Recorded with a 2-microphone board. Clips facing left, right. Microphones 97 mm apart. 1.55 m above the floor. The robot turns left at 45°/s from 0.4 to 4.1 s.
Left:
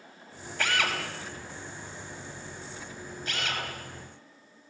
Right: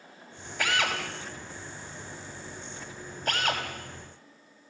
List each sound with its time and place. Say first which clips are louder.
0.6 s a drill: right 1 dB; 10° right (ahead or behind), 4.5 m; by 3.6 s 35° right (ahead or behind), 4.5 m